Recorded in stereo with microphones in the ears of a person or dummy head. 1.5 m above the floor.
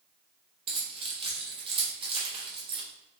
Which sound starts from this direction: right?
Keys jangling, at 0.7 s.